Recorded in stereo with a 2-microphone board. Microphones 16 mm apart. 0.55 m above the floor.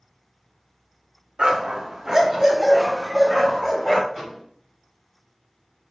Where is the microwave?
15° right (ahead or behind), 1.7 m.